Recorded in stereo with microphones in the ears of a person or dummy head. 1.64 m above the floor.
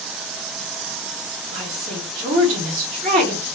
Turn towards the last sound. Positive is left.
turn(degrees=-30)  # may be behind; listen again after turning